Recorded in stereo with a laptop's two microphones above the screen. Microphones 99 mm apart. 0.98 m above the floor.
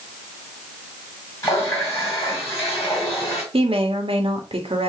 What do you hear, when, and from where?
1.4 s a running tap: 30° left (ahead or behind), 2.5 m
3.5 s a woman speaking: 65° right (ahead or behind), 1.4 m